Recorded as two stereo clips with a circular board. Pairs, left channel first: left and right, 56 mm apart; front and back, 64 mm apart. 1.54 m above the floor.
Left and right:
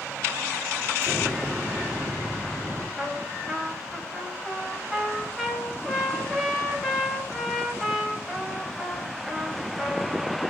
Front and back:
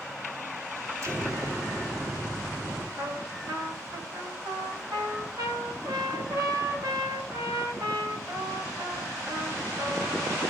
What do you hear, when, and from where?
1.0 s an explosion: 140° right, 3 m
3.0 s a trumpet: 175° right, 4.5 m